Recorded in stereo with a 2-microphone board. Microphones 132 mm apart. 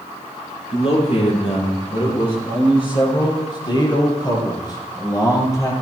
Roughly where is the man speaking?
Left.